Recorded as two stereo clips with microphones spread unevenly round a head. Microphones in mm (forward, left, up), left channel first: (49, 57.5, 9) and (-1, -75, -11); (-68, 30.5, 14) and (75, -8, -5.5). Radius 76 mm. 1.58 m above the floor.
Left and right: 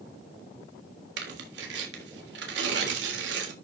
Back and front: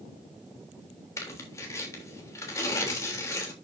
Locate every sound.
1.2 s tearing paper: 120° right, 3.5 m